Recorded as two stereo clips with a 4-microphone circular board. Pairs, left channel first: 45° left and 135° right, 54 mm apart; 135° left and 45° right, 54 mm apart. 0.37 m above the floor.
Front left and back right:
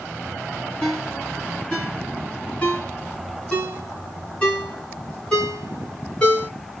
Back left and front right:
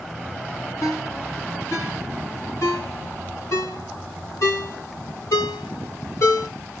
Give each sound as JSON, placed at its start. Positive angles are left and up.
{"t": 0.8, "sound": "a ringtone", "azimuth_deg": 115, "distance_m": 2.0}